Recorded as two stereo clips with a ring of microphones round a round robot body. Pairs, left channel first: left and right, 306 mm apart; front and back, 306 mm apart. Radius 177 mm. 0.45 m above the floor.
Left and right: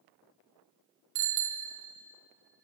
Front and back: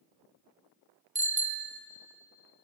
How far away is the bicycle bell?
About 2 m.